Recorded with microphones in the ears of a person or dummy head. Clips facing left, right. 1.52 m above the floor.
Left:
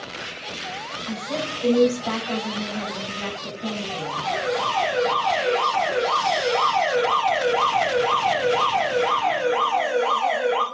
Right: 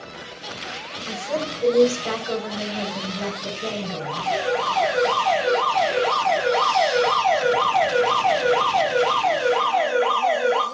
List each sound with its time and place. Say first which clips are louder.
1.1 s a woman speaking: right 2 dB; 70° right (ahead or behind), 6 m
4.0 s an alarm: right 2 dB; 55° right (ahead or behind), 4 m